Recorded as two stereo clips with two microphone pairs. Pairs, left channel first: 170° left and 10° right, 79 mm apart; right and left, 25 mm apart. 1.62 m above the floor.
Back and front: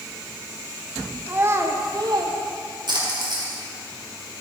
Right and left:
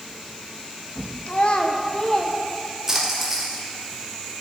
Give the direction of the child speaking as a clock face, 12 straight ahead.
2 o'clock.